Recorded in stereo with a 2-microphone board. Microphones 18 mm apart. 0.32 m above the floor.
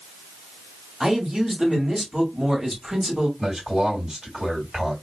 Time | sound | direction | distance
1.0 | a man speaking | 40° right (ahead or behind) | 1.4 m
3.4 | a man speaking | 30° right (ahead or behind) | 2.5 m